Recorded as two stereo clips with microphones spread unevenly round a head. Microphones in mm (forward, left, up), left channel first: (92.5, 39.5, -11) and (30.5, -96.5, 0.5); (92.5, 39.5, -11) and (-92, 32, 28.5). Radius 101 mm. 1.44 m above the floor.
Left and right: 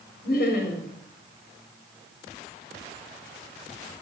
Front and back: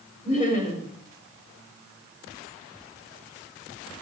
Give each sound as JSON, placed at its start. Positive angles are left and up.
{"t": 0.2, "sound": "laughter", "azimuth_deg": 60, "distance_m": 4.5}